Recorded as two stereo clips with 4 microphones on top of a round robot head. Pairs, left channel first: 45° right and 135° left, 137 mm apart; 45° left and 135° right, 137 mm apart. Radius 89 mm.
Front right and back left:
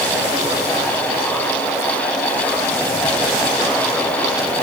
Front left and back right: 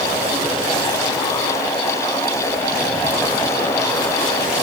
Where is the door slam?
No door slam in this recording.